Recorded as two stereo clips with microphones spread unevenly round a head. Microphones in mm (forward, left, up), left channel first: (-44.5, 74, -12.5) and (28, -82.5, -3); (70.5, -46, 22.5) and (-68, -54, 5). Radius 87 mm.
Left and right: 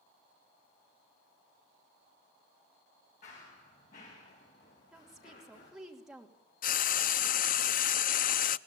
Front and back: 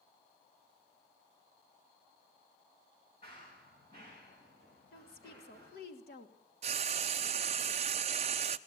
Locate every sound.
3.2 s running footsteps: 65° left, 9 m; by 5.7 s 75° left, 8 m
4.9 s a woman speaking: 20° left, 2.5 m
6.6 s frying: 135° left, 0.5 m